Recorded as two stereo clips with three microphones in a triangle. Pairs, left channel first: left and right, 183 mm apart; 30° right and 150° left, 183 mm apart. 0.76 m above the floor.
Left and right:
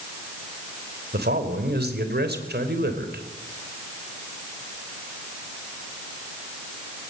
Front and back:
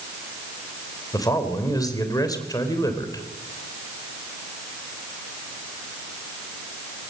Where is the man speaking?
100° right, 3.5 m.